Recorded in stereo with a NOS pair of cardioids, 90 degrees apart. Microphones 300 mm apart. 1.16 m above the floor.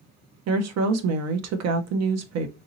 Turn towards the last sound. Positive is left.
turn(degrees=-60)